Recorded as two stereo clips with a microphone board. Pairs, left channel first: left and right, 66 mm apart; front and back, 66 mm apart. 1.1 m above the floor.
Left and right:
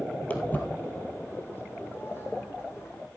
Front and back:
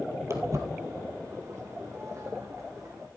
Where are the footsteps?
150° left, 1.6 m; by 3.1 s 140° left, 4 m.